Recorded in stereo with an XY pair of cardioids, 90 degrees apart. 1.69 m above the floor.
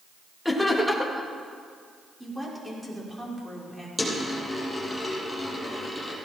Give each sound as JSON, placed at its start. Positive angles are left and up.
{"t": 0.5, "sound": "laughter", "azimuth_deg": 5, "distance_m": 3.5}
{"t": 2.2, "sound": "a woman speaking", "azimuth_deg": -10, "distance_m": 5.5}
{"t": 4.0, "sound": "a dropped coin", "azimuth_deg": 5, "distance_m": 6.0}